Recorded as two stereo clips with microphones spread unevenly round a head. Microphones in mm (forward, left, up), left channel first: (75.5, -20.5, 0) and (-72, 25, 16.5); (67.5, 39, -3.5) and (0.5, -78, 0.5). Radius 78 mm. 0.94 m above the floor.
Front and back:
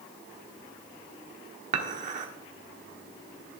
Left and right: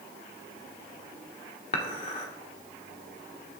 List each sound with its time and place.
1.7 s dishes clattering: 115° left, 1.8 m